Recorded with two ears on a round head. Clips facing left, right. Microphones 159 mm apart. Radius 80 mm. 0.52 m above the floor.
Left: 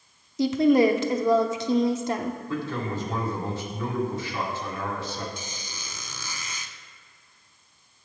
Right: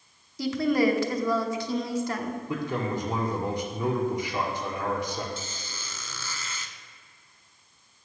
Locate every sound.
0.4 s a woman speaking: 20° left (ahead or behind), 0.7 m
2.5 s a man speaking: 15° right (ahead or behind), 1.5 m
5.4 s a squeak: 15° left (ahead or behind), 0.5 m